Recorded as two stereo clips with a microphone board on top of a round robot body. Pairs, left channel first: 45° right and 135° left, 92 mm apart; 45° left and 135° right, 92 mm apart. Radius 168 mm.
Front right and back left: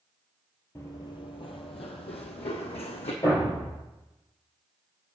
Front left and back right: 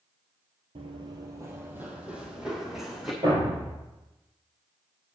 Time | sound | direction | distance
0.8 | running footsteps | 105° right | 0.6 m
3.2 | a thud | 95° right | 4 m